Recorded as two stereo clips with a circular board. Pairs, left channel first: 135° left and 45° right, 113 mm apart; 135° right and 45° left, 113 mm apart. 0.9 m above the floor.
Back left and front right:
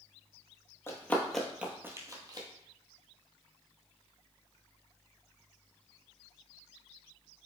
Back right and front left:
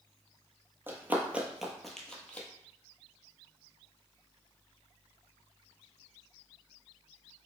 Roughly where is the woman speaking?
No woman speaking in this recording.